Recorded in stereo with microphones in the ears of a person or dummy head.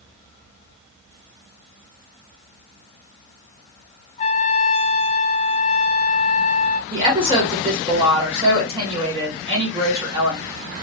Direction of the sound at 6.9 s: 25° right (ahead or behind).